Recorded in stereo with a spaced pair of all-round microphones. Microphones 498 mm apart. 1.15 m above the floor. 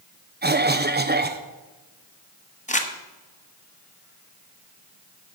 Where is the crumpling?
15° left (ahead or behind), 1.0 m.